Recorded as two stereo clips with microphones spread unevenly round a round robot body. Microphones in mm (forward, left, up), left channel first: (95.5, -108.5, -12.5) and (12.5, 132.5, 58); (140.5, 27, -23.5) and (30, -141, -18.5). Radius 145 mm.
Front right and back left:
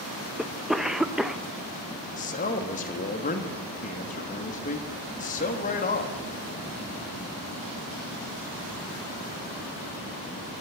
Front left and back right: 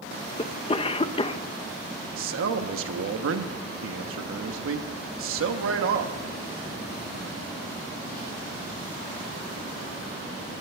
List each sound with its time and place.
0.4 s a cough: 5° left, 0.6 m
2.2 s a man speaking: 125° right, 1.3 m